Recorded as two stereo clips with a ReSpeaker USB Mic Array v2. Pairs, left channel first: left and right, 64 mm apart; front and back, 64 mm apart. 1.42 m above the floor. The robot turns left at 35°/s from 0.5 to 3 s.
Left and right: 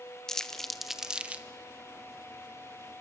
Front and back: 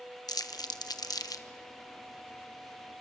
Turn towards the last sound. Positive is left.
turn(degrees=-80)